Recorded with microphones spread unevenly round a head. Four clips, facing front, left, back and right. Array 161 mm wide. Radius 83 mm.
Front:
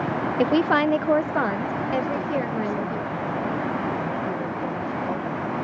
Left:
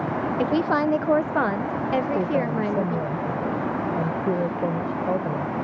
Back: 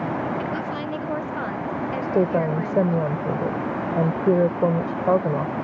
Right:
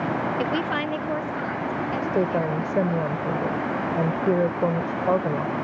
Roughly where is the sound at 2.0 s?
Behind.